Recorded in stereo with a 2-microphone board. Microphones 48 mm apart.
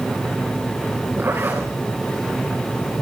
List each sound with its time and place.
1.2 s a zipper: 50° right (ahead or behind), 6 m